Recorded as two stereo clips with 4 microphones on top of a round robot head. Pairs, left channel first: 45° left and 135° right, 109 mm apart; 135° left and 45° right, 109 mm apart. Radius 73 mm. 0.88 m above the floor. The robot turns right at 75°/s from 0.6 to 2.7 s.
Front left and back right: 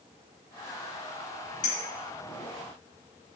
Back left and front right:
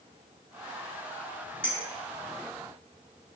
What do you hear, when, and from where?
1.6 s a clink: 55° left, 0.7 m; by 1.8 s 65° left, 0.7 m